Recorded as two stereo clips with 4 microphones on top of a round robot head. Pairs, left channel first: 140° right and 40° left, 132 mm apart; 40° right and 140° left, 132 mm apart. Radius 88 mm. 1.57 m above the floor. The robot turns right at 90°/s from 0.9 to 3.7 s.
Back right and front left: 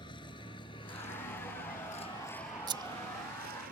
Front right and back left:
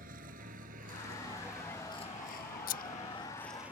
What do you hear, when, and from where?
0.0 s a vehicle: 165° left; by 3.7 s 60° left
2.7 s scissors: 20° right; by 2.8 s 10° right